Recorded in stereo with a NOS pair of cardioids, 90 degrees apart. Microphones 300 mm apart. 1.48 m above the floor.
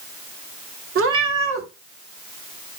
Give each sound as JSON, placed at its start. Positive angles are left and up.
{"t": 0.9, "sound": "a cat meowing", "azimuth_deg": -50, "distance_m": 2.0}